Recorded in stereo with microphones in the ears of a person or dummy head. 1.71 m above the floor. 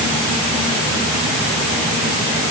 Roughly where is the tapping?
No tapping in this recording.